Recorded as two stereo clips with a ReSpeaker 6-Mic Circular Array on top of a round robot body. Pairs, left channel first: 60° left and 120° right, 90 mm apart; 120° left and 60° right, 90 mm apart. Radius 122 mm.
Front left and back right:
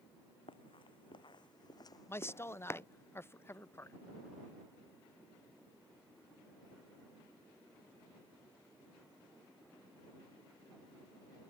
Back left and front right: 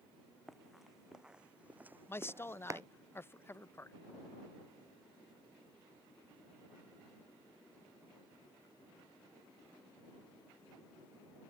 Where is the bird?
I don't hear a bird.